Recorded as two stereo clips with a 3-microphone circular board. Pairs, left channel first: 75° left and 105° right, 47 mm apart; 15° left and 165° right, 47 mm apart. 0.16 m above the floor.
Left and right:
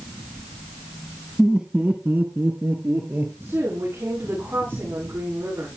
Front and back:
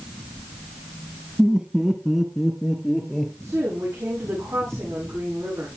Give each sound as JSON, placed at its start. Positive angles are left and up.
{"t": 1.4, "sound": "laughter", "azimuth_deg": 180, "distance_m": 1.0}
{"t": 3.4, "sound": "a woman speaking", "azimuth_deg": -145, "distance_m": 8.5}